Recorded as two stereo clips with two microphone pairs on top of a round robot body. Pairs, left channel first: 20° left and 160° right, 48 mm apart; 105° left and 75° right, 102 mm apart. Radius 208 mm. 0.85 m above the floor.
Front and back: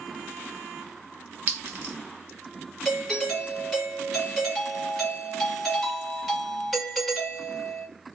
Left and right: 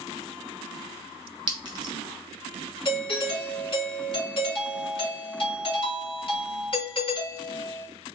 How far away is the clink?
About 0.8 m.